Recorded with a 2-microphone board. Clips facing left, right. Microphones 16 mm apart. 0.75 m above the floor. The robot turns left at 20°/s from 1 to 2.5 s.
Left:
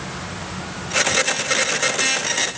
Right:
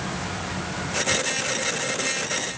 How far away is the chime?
No chime in this recording.